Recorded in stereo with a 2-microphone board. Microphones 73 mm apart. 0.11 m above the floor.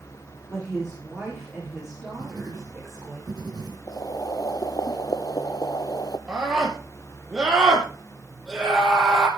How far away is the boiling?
About 0.8 m.